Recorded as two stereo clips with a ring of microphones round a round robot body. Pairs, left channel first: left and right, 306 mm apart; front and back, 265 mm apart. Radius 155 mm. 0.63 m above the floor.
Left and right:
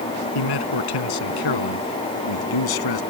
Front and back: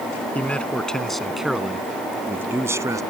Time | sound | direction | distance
0.3 | a man speaking | 85° left | ?